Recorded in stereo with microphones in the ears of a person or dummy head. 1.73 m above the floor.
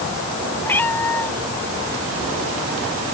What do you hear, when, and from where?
0.6 s a cat meowing: 15° left (ahead or behind)